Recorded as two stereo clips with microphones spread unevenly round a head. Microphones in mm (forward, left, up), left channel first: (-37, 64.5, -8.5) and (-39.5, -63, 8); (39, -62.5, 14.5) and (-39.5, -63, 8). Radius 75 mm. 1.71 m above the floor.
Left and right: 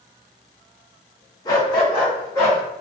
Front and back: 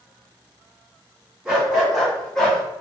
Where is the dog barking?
115° left, 1.2 m; by 2.6 s 30° left, 1.1 m.